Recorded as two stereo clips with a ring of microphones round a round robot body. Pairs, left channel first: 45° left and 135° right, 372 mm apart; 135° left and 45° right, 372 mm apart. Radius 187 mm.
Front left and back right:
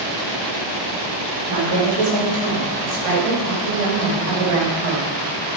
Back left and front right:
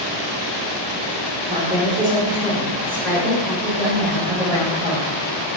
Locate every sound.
1.5 s a woman speaking: 120° right, 3.5 m; by 5.1 s 140° right, 5 m